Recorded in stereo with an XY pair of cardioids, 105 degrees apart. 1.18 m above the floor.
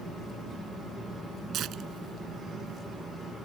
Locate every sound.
1.5 s tearing paper: 70° right